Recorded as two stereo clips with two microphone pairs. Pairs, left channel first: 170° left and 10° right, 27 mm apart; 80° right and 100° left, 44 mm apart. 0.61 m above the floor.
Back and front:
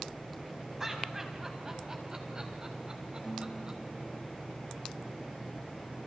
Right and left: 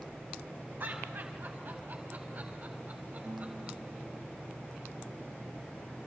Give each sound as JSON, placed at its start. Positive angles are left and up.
{"t": 0.8, "sound": "laughter", "azimuth_deg": 60, "distance_m": 5.0}
{"t": 3.2, "sound": "a guitar", "azimuth_deg": 75, "distance_m": 2.5}